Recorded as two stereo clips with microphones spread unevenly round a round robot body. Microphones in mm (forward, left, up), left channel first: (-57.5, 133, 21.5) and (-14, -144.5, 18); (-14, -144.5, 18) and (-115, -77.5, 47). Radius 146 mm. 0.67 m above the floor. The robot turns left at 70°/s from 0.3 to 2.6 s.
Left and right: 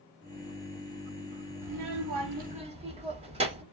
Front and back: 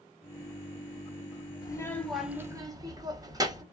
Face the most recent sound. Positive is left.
turn(degrees=-150)